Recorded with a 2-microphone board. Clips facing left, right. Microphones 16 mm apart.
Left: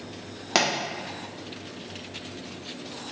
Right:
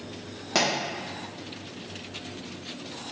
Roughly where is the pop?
Left.